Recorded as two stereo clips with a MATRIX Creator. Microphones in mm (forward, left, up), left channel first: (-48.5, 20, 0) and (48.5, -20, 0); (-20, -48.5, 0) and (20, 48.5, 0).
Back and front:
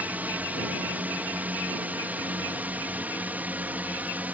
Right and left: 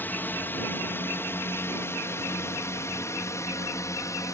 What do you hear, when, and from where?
0.0 s a drone: 75° right; by 4.3 s 85° right